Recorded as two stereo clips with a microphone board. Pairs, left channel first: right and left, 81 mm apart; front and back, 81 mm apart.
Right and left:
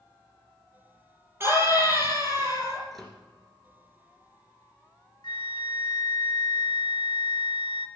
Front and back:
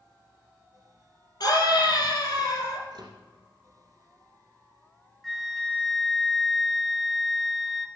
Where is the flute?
85° right, 0.6 m.